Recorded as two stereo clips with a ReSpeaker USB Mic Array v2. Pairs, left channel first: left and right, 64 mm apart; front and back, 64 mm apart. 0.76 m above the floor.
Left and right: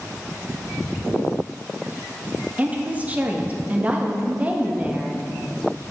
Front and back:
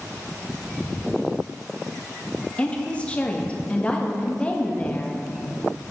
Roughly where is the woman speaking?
Ahead right.